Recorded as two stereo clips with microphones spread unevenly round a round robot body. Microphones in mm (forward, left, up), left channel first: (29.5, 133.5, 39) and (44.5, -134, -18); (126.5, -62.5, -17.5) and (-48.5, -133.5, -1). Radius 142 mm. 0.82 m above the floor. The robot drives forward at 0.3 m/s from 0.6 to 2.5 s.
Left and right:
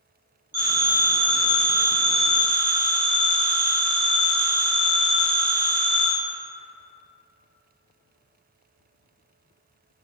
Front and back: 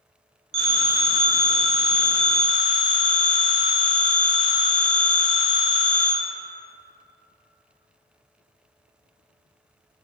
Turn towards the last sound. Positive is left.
turn(degrees=-170)